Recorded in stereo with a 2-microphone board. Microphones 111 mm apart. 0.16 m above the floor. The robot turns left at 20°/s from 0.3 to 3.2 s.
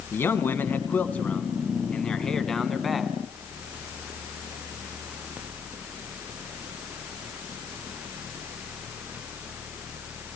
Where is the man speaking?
20° left (ahead or behind), 1.5 m; by 3.1 s centre (ahead or behind), 1.5 m.